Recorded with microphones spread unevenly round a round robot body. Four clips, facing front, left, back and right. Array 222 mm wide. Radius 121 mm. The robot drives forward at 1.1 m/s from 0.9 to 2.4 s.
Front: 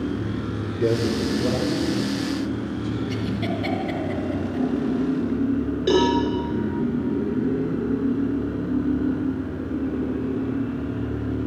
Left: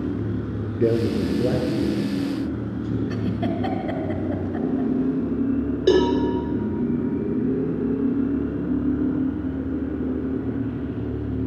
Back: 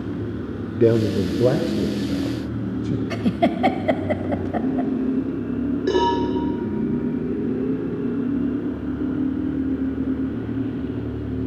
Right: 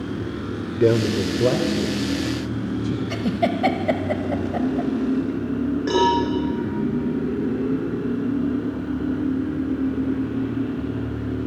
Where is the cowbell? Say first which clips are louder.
Left 2 dB, front 1 dB; 95° left, 5 m.